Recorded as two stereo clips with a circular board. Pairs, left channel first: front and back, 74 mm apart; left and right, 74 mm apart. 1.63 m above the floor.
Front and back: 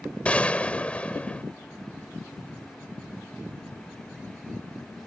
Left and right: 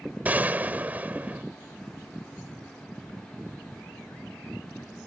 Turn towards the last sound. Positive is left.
turn(degrees=-50)